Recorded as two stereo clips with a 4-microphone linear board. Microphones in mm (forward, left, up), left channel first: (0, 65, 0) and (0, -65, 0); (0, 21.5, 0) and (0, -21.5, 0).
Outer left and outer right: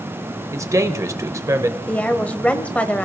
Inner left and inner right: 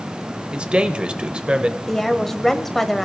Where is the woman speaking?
10° left (ahead or behind), 1.1 m.